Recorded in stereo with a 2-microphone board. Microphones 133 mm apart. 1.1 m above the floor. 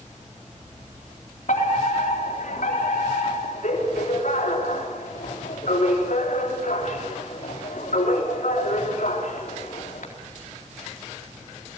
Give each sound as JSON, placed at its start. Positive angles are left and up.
{"t": 1.5, "sound": "a fire alarm", "side_deg": 75, "distance_m": 4.0}